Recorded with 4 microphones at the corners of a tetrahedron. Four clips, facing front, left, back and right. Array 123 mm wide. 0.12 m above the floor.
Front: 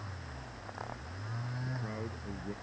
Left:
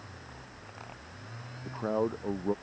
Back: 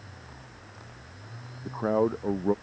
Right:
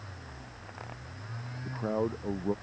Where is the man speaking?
175° left.